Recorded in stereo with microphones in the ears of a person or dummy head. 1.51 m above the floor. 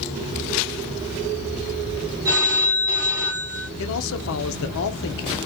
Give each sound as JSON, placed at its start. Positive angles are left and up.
{"t": 2.2, "sound": "a phone ringing", "side_deg": -15, "distance_m": 0.6}
{"t": 3.8, "sound": "a man speaking", "side_deg": 75, "distance_m": 0.8}